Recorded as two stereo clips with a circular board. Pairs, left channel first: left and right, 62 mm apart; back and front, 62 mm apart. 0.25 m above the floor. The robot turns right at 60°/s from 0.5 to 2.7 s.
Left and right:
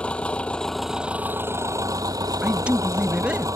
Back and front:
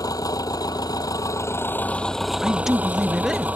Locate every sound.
0.0 s an engine running: 160° left; by 3.6 s 65° right
2.4 s a man speaking: 90° right; by 3.5 s 75° right